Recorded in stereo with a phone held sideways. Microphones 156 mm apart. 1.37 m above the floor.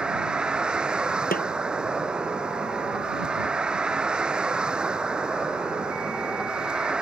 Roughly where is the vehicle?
Centre.